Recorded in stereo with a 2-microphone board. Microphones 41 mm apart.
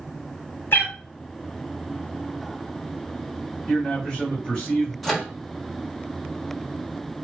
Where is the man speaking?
20° left (ahead or behind), 1.4 m.